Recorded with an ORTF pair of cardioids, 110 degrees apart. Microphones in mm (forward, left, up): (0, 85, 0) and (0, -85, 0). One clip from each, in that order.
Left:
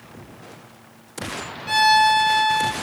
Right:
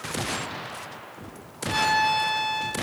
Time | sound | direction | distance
1.7 | a violin | 50° left | 0.8 m